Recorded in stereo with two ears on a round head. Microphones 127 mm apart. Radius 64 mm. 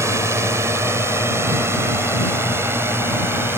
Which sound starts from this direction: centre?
A drone, at 0.0 s.